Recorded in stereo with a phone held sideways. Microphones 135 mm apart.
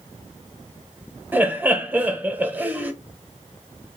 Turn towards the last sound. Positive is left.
turn(degrees=-15)  # may be behind; listen again after turning